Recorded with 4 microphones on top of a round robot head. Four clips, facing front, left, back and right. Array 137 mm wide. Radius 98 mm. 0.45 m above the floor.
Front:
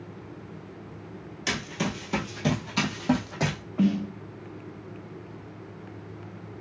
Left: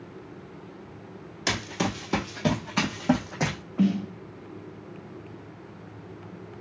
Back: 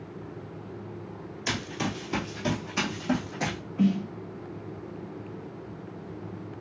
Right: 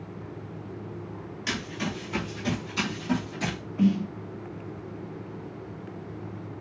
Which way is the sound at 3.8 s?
40° left.